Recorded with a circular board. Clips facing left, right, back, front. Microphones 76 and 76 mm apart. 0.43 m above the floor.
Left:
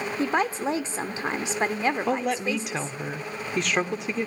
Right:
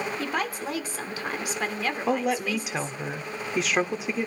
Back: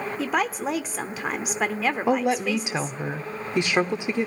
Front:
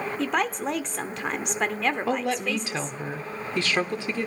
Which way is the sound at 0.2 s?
100° left.